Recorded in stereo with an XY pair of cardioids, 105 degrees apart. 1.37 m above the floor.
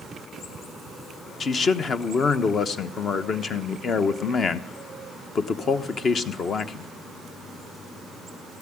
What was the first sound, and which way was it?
A man speaking, 45° left.